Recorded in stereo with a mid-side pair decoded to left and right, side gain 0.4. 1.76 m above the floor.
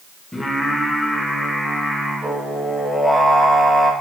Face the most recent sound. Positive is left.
turn(degrees=15)